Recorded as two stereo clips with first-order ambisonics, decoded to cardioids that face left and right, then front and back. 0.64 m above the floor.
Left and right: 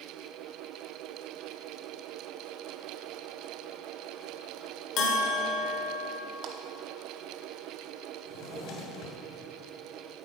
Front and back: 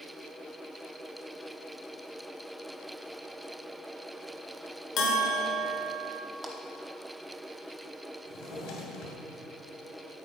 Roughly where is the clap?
Right.